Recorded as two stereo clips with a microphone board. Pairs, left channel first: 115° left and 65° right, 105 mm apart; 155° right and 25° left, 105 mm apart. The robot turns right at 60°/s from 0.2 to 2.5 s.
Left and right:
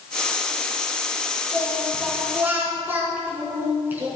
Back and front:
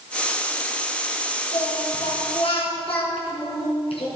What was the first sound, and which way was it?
Singing, 165° left.